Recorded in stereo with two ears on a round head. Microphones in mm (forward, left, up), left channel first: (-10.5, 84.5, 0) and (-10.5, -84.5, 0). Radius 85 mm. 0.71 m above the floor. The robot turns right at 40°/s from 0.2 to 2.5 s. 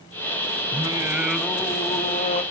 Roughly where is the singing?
Ahead right.